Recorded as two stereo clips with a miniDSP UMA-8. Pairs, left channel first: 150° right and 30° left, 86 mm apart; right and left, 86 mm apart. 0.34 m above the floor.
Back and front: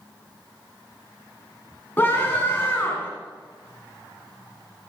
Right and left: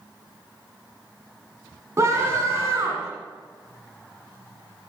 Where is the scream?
140° left, 2.5 m.